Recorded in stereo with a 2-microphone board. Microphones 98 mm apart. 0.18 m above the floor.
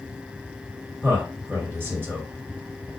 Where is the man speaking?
25° right (ahead or behind), 1.8 m.